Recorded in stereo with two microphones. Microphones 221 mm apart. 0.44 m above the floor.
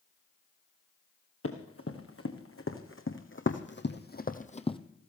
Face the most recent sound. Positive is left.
turn(degrees=20)  # may be behind; listen again after turning